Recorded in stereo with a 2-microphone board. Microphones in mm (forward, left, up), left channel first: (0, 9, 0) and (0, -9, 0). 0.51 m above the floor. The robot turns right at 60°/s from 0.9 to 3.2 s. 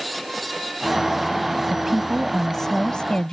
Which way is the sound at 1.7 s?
35° right.